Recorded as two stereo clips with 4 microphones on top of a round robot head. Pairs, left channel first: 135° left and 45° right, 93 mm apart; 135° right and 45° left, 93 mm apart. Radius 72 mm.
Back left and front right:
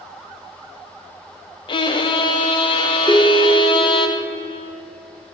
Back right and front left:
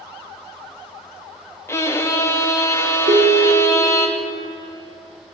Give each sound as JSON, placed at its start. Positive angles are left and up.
{"t": 1.7, "sound": "a violin", "azimuth_deg": 165, "distance_m": 0.6}
{"t": 3.1, "sound": "a ringtone", "azimuth_deg": 60, "distance_m": 0.8}